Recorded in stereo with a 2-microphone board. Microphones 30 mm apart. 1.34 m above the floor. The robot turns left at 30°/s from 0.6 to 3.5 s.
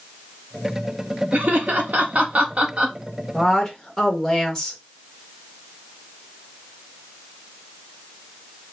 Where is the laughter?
70° right (ahead or behind), 1.3 m; by 3.0 s 40° right (ahead or behind), 1.3 m.